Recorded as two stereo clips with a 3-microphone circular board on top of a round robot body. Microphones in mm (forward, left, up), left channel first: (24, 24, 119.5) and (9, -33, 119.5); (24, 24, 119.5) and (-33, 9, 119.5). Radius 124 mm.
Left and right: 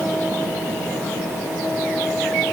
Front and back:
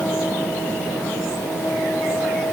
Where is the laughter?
No laughter in this recording.